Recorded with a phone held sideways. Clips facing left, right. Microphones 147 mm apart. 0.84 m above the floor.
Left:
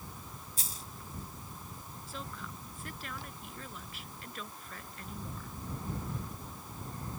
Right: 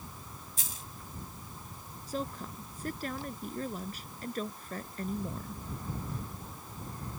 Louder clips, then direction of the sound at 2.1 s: Right 9 dB; 40° right (ahead or behind).